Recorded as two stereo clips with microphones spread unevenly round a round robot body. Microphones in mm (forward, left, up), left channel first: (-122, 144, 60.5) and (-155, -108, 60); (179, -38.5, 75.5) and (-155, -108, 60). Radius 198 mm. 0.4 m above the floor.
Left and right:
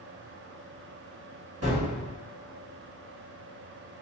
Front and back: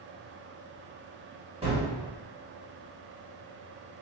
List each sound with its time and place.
1.6 s a gunshot: 100° right, 1.7 m